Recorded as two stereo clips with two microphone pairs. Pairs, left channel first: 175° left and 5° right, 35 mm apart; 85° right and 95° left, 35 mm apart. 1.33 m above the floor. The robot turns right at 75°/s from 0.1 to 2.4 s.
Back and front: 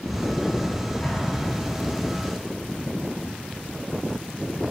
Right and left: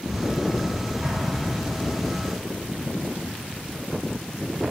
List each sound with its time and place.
1.0 s an explosion: 140° left, 3.5 m; by 2.0 s 145° right, 3.5 m